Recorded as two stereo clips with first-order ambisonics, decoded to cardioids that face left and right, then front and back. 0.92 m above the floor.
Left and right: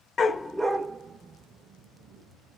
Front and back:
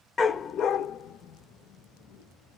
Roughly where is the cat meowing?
No cat meowing in this recording.